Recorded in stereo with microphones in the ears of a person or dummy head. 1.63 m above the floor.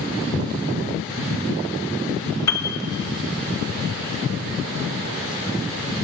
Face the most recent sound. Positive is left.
turn(degrees=20)  # may be behind; listen again after turning